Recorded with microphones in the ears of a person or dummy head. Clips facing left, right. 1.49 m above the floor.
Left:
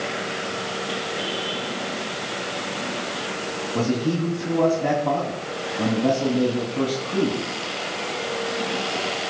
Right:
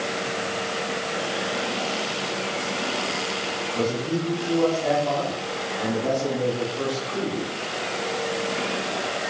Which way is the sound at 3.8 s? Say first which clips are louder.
Left 3 dB; 80° left.